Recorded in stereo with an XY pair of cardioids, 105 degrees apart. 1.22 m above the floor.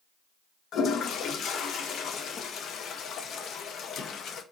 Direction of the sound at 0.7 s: 65° left.